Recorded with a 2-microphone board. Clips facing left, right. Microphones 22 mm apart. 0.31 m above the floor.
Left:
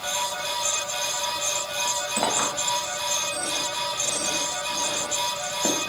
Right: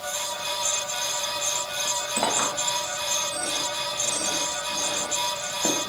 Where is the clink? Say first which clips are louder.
Right 1 dB; 10° left (ahead or behind), 0.8 m.